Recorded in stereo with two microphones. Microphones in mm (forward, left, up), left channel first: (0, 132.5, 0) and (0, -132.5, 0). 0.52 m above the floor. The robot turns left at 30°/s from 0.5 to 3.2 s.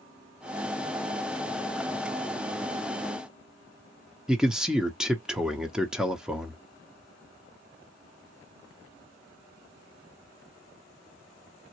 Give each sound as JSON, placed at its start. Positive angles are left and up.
{"t": 4.3, "sound": "a man speaking", "side_deg": 0, "distance_m": 0.7}